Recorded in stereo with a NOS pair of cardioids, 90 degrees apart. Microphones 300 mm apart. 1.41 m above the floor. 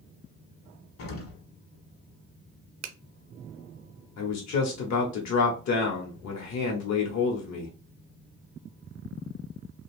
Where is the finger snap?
60° right, 0.6 m.